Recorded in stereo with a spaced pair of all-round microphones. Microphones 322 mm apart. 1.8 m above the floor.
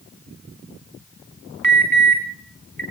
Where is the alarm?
80° right, 5 m.